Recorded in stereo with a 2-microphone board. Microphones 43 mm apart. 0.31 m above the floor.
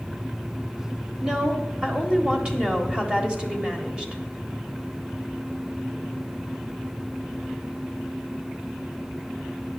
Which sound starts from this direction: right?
A woman speaking, at 1.2 s.